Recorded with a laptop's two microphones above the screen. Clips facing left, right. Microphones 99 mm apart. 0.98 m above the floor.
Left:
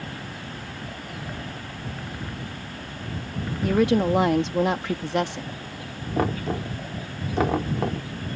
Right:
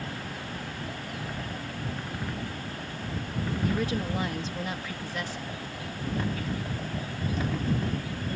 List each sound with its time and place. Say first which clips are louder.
3.6 s a woman speaking: left 11 dB; 70° left (ahead or behind)
6.2 s knocking: left 9 dB; 80° left